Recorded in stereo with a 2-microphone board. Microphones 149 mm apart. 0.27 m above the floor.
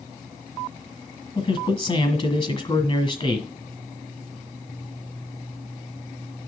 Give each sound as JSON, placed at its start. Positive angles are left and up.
{"t": 1.4, "sound": "a man speaking", "side_deg": 40, "distance_m": 1.8}